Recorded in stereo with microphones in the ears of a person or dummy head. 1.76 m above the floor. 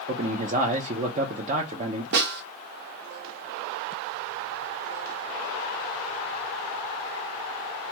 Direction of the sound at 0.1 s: 35° right (ahead or behind).